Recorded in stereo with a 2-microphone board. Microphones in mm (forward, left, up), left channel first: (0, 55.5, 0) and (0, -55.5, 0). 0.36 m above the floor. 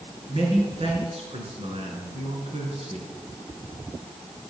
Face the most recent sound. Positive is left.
turn(degrees=-70)  # may be behind; listen again after turning